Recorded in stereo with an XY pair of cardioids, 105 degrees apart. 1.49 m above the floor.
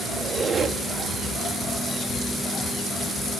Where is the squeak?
40° right, 1.8 m.